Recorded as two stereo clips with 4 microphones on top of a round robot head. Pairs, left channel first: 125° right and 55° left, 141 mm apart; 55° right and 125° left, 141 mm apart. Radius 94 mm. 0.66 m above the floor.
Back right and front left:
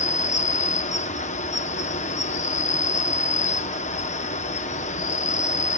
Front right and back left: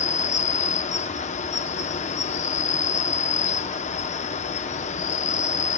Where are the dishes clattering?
No dishes clattering in this recording.